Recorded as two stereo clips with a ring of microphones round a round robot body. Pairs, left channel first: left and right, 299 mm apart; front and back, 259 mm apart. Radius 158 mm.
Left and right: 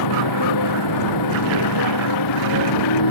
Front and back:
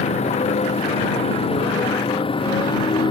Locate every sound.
0.0 s a motorcycle: 65° left; by 3.1 s 70° left